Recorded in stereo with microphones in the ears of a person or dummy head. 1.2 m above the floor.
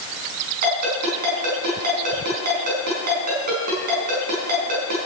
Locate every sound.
0.6 s a ringtone: 50° right (ahead or behind), 5 m